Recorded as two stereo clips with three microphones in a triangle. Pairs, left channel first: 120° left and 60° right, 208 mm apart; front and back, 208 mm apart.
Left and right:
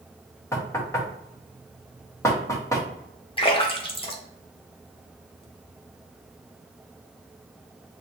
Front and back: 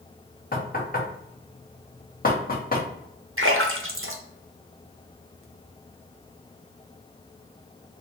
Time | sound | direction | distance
0.5 | knocking | 45° left | 1.4 m
3.4 | a splash | straight behind | 1.0 m